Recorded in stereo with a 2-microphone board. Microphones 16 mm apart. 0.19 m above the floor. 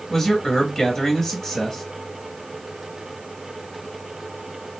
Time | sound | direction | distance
0.1 | a man speaking | 15° left (ahead or behind) | 1.0 m